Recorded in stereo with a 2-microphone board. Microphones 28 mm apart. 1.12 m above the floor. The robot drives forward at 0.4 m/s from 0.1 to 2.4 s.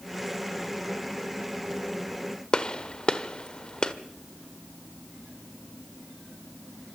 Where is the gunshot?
30° left (ahead or behind), 1.2 m.